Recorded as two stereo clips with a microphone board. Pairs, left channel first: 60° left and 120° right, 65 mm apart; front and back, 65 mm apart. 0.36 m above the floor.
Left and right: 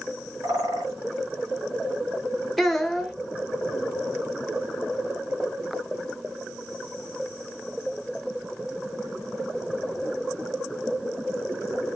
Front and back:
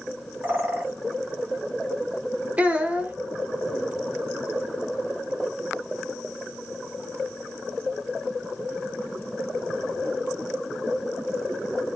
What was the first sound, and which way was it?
A bird, 120° right.